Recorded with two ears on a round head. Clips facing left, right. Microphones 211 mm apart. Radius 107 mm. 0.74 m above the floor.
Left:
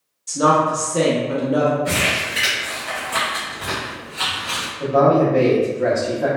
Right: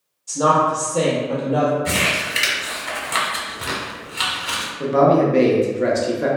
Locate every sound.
0.3 s a woman speaking: 25° left (ahead or behind), 0.9 m
1.9 s crumpling: 40° right (ahead or behind), 1.0 m
4.8 s a man speaking: 30° right (ahead or behind), 0.6 m